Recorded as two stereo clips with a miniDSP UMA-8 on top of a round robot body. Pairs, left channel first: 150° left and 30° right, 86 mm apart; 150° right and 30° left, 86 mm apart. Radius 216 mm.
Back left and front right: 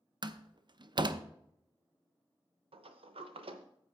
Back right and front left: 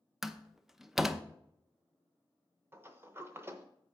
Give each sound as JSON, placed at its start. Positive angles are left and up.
{"t": 0.2, "sound": "a door slam", "azimuth_deg": -55, "distance_m": 0.8}
{"t": 2.7, "sound": "a sliding door", "azimuth_deg": -35, "distance_m": 0.7}